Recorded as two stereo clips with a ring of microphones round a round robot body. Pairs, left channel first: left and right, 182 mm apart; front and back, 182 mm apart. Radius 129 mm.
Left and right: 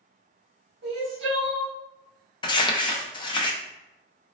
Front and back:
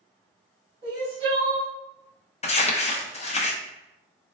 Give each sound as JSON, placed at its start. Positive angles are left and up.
{"t": 0.8, "sound": "crying", "azimuth_deg": -110, "distance_m": 1.9}
{"t": 2.4, "sound": "crumpling", "azimuth_deg": 35, "distance_m": 0.6}